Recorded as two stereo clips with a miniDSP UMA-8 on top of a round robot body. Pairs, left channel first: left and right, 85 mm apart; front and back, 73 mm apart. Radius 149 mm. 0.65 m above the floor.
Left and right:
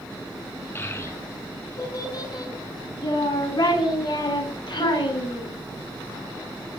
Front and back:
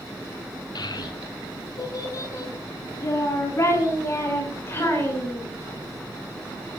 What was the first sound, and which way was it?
A child speaking, 30° left.